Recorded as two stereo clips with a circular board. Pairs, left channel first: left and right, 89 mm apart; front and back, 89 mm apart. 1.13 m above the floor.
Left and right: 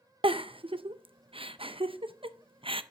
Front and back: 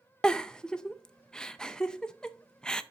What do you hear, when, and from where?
0.2 s a giggle: 80° right, 0.6 m